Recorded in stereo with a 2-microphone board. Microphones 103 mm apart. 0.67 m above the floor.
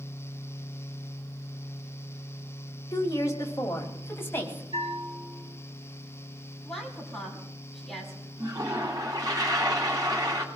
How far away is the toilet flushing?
About 3 m.